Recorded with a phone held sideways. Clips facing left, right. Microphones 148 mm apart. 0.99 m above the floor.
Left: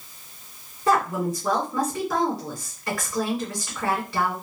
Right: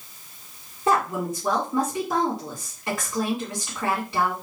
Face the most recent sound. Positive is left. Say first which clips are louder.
# left 1 dB
turn(degrees=-20)  # may be behind; listen again after turning